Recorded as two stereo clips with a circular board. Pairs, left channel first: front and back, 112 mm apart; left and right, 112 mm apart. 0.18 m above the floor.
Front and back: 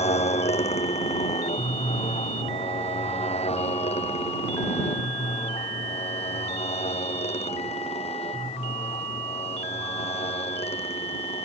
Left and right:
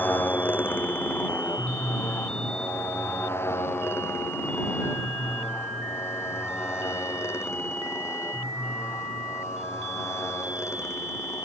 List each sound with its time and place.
0.0 s a motorcycle: 15° left; by 11.4 s 25° left